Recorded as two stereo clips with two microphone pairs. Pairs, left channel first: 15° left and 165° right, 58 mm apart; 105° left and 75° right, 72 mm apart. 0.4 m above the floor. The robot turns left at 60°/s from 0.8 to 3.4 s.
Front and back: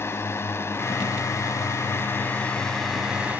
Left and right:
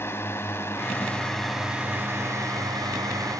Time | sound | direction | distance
0.0 | a drone | 50° left | ?